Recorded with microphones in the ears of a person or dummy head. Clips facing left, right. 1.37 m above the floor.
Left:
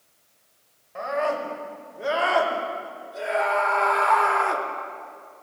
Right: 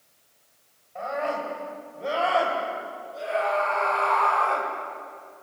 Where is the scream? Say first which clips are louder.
Left 3 dB; 85° left, 7.5 m; by 4.7 s 80° left, 5.5 m.